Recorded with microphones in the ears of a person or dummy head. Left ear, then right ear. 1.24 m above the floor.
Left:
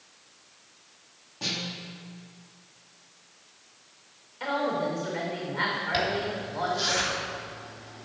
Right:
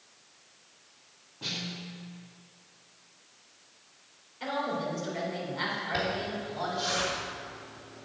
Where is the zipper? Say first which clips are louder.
Left 4 dB; 25° left (ahead or behind), 3 m.